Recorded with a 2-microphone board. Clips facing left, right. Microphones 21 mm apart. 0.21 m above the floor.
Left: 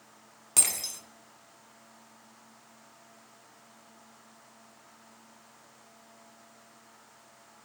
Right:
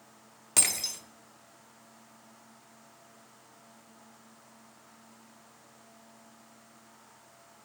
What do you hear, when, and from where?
0.6 s breaking glass: 10° right (ahead or behind), 1.0 m